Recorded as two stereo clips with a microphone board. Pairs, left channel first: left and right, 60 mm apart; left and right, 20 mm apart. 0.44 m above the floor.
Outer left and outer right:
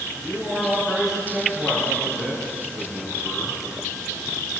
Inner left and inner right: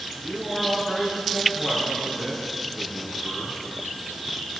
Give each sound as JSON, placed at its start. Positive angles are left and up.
{"t": 0.2, "sound": "a man speaking", "side_deg": 5, "distance_m": 5.0}